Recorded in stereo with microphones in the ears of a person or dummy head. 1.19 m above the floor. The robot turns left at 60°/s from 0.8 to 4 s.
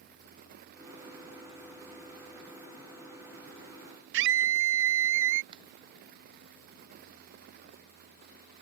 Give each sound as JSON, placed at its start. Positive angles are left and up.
{"t": 4.1, "sound": "a scream", "side_deg": -65}
{"t": 5.5, "sound": "a finger snap", "side_deg": -30}